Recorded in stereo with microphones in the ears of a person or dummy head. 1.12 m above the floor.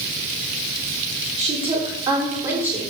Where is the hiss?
I don't hear a hiss.